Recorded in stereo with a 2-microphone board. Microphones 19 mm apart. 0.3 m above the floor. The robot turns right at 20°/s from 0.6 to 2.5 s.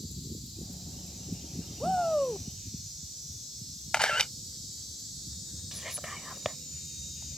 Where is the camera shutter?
55° left (ahead or behind).